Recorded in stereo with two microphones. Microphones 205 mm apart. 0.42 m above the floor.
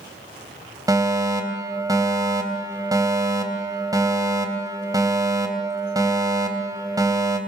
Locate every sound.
0.9 s a fire alarm: 15° right (ahead or behind), 3.5 m